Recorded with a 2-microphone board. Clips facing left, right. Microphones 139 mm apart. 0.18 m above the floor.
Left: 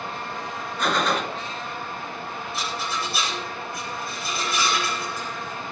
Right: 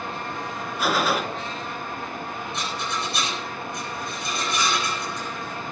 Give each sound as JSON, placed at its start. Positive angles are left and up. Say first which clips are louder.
{"t": 0.8, "sound": "a gunshot", "louder": "even", "side_deg": -5, "distance_m": 1.1}
{"t": 2.5, "sound": "a rattle", "louder": "left 1 dB", "side_deg": 5, "distance_m": 9.5}